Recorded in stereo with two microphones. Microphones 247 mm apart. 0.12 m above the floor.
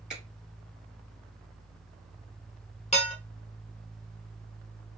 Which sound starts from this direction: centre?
A finger snap, at 0.1 s.